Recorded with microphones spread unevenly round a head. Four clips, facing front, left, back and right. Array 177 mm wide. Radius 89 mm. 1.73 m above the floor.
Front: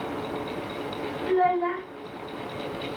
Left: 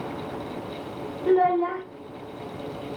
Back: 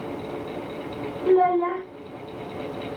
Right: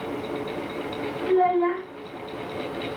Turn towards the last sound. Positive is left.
turn(degrees=145)